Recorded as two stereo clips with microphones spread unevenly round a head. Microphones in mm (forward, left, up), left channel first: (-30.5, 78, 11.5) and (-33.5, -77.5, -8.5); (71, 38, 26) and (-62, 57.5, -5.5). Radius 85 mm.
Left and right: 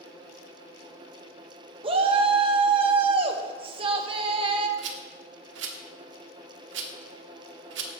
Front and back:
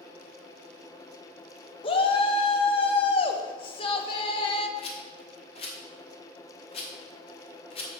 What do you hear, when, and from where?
1.8 s a shout: 65° right, 0.8 m
4.8 s a rattle: 70° right, 1.0 m